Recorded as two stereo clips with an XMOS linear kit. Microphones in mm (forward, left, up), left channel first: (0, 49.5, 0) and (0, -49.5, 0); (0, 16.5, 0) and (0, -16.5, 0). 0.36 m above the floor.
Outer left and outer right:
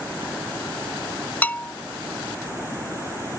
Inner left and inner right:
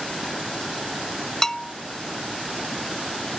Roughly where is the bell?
Centre.